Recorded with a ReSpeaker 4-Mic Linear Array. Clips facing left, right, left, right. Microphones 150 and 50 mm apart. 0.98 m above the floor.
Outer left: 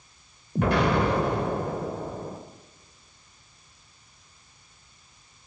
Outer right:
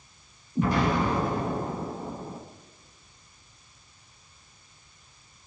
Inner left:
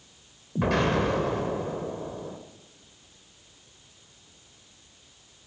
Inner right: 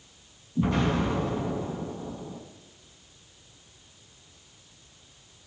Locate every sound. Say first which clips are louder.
0.6 s an explosion: outer left 2 dB, inner left 2 dB; 80° left, 3.5 m